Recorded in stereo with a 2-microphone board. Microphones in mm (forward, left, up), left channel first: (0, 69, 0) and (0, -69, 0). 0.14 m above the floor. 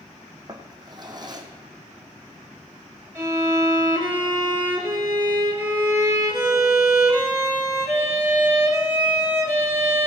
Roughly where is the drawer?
Right.